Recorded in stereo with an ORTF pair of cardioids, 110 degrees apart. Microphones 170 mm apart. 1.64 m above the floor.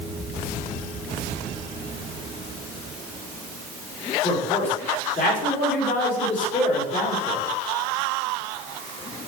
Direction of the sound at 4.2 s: 45° left.